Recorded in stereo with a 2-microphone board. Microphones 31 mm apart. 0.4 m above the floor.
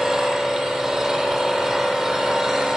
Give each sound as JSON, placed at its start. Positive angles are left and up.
{"t": 0.0, "sound": "an engine running", "side_deg": -5, "distance_m": 7.0}